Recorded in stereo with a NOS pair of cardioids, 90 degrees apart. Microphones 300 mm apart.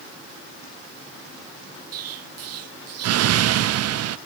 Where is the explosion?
60° right, 0.6 m.